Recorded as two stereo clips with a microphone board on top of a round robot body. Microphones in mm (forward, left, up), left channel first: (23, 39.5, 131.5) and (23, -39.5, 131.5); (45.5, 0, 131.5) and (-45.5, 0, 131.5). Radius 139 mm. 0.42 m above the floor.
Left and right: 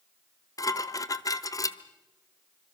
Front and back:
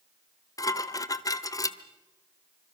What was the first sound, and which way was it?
Dishes clattering, 50° left.